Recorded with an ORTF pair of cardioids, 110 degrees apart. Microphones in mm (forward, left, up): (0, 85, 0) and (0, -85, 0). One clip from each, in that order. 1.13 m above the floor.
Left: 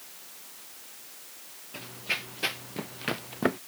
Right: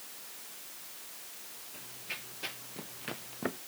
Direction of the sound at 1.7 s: 60° left.